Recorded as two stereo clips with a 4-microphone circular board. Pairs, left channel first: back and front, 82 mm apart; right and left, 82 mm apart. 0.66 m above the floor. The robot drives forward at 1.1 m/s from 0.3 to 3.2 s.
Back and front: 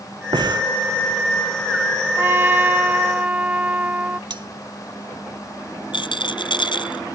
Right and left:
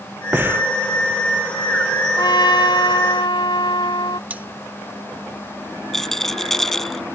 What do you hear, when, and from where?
0.3 s breathing: 25° left
2.2 s a trumpet: 60° right; by 4.2 s 70° right
4.3 s cutlery clinking: 20° left
5.9 s a rattle: 175° right